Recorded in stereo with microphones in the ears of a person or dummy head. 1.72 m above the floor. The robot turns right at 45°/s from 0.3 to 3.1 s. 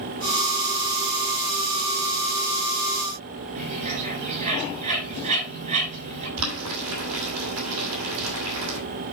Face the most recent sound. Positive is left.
turn(degrees=-75)  # may be behind; listen again after turning